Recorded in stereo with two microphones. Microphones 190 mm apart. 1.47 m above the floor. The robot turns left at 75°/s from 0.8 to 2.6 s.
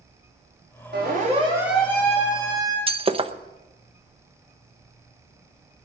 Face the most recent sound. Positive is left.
turn(degrees=-30)  # may be behind; listen again after turning